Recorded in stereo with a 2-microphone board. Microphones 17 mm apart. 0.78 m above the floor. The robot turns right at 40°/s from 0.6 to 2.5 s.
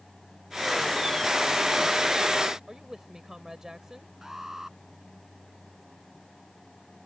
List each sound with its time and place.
2.7 s a woman speaking: 30° right (ahead or behind)
4.2 s an alarm: 25° right (ahead or behind)